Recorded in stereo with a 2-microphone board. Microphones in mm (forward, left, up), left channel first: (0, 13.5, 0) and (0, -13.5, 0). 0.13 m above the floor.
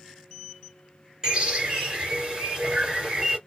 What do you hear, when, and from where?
1.2 s a bird: 20° right (ahead or behind), 2.5 m